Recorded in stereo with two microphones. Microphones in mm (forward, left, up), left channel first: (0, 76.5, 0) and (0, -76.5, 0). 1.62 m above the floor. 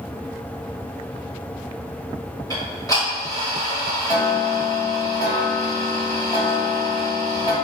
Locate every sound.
2.5 s ticking: 20° left (ahead or behind), 1.8 m